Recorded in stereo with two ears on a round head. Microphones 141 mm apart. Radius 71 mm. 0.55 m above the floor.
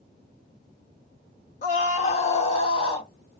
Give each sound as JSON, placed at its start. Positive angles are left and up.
{"t": 1.6, "sound": "a scream", "side_deg": 50, "distance_m": 1.6}